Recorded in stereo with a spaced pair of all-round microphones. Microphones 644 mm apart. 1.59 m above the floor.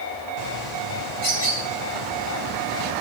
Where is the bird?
85° right, 8 m.